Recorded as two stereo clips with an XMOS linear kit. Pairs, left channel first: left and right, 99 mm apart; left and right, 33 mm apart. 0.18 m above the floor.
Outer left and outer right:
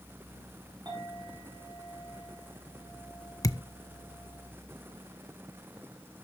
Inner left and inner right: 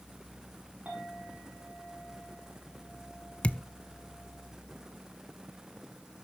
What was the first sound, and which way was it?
A clink, 40° right (ahead or behind).